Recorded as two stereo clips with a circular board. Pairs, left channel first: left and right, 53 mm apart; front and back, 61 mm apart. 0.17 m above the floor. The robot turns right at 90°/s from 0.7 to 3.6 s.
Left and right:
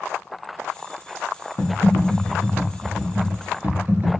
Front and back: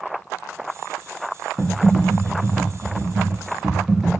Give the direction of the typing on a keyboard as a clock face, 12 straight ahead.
9 o'clock.